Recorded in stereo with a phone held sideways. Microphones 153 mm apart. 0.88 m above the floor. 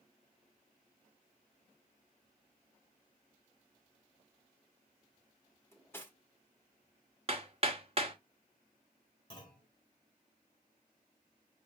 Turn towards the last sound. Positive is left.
turn(degrees=35)  # may be behind; listen again after turning